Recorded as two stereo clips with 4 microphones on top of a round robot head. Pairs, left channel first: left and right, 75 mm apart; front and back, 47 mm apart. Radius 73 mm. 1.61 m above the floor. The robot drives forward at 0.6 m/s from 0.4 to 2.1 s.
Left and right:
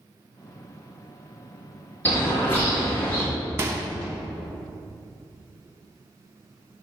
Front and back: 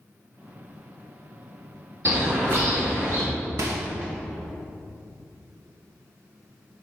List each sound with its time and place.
2.0 s a bird: 150° left, 1.7 m
3.6 s a microwave: 145° right, 0.7 m